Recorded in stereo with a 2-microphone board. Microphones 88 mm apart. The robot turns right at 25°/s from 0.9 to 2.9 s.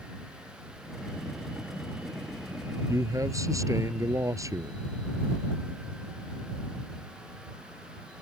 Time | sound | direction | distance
2.9 | a man speaking | 40° right (ahead or behind) | ?